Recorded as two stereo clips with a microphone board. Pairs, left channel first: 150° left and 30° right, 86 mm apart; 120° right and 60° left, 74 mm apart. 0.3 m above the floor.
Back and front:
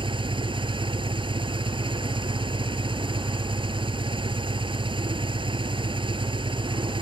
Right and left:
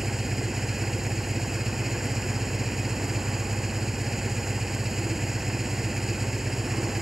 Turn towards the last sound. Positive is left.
turn(degrees=-25)